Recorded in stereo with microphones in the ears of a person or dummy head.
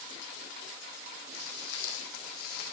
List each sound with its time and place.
1.3 s footsteps: 65° left (ahead or behind), 4 m; by 2.7 s 60° left (ahead or behind), 3.5 m